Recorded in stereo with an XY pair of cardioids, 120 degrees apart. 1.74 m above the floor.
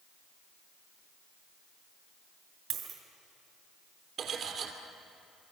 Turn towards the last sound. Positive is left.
turn(degrees=-55)